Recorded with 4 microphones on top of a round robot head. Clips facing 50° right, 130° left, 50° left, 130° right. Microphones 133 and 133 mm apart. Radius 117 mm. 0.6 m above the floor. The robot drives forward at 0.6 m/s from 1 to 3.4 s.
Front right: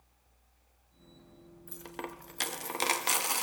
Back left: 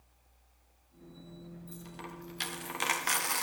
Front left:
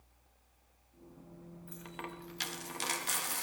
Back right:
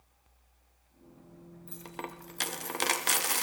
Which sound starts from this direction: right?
A dropped coin, at 1.7 s.